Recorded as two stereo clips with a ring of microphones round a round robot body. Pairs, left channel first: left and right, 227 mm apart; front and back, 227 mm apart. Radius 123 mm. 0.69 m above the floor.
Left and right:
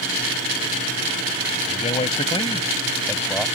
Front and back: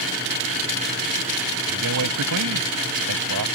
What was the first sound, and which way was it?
A man speaking, 150° left.